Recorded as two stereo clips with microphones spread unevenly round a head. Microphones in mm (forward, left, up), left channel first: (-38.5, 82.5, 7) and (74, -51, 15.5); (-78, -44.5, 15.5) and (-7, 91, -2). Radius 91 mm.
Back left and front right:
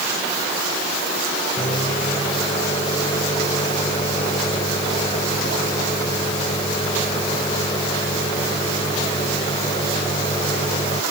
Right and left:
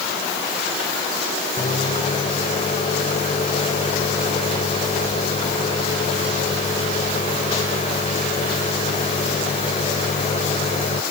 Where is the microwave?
160° right.